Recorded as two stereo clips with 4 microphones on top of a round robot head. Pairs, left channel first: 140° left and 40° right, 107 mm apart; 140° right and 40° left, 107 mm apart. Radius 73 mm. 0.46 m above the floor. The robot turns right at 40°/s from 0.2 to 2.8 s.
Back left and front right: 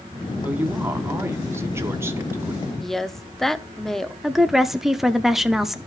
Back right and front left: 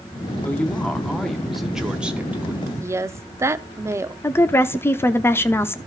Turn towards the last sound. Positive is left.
turn(degrees=-125)